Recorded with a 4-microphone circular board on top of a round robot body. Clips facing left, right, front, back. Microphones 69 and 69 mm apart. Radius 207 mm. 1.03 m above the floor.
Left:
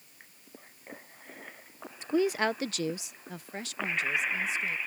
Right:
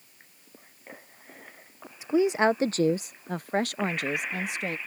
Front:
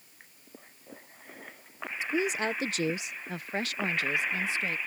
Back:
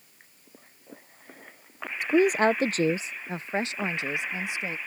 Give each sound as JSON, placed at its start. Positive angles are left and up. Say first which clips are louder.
{"t": 2.0, "sound": "a woman speaking", "louder": "right 5 dB, back 9 dB", "azimuth_deg": -170}